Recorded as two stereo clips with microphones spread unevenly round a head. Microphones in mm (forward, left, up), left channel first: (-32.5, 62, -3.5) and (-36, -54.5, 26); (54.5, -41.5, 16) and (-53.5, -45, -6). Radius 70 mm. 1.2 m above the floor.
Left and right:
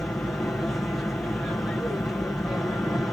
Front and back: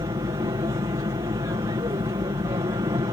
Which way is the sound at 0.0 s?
155° left.